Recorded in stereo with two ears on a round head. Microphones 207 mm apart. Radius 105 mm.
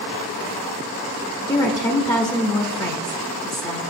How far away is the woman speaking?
About 0.8 m.